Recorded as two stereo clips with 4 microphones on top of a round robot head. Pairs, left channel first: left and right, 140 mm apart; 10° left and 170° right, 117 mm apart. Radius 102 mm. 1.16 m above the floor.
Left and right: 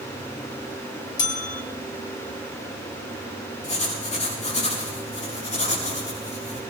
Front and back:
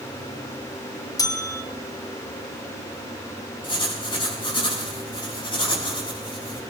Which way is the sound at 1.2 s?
65° left.